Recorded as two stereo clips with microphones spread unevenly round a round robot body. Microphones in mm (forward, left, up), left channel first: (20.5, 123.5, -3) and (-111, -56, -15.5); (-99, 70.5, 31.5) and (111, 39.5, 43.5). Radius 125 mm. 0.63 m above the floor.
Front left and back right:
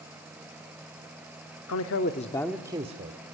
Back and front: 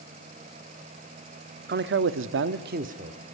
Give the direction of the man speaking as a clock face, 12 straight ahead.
11 o'clock.